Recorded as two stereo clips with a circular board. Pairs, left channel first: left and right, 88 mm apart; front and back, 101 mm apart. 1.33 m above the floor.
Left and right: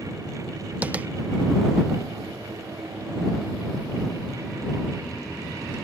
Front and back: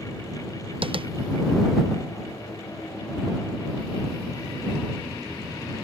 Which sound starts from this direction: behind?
Tapping, at 0.8 s.